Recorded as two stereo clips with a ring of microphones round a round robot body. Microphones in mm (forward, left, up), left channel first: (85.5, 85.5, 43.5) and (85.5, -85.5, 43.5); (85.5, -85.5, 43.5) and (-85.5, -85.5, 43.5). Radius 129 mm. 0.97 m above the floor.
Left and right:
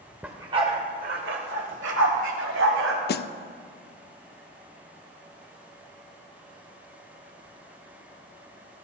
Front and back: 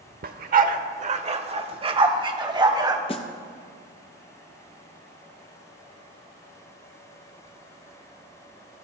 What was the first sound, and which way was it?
A dog barking, 170° right.